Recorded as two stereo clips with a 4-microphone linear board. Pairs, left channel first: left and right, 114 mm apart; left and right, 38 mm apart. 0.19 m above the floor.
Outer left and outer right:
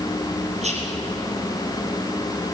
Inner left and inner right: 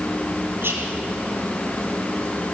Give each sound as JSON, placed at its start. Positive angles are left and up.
{"t": 0.6, "sound": "whispering", "side_deg": -75, "distance_m": 5.0}